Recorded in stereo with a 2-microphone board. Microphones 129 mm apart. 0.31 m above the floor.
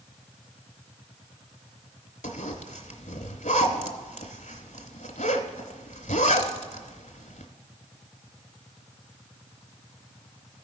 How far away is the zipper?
About 0.9 m.